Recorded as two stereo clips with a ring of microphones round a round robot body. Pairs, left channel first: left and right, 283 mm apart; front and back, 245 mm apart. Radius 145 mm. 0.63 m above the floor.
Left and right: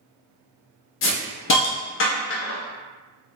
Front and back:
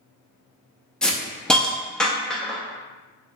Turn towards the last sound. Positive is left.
turn(degrees=85)